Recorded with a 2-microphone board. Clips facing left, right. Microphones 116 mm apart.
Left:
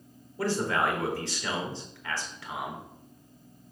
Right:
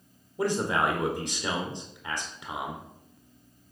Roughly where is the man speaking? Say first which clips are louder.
Right 1 dB; centre.